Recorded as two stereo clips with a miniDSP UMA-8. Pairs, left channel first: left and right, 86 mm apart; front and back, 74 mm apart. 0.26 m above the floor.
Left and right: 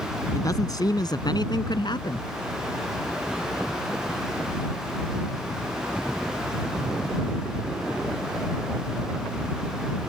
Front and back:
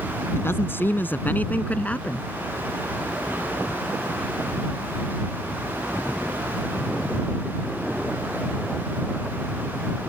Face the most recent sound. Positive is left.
turn(degrees=70)